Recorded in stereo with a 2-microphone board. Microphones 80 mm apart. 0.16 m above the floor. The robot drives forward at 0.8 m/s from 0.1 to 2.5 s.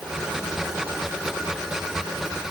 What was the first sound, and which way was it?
Only background noise.